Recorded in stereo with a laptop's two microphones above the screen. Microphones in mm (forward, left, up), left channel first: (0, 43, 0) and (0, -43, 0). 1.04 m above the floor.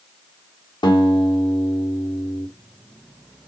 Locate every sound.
0.8 s a guitar: 65° left (ahead or behind), 1.3 m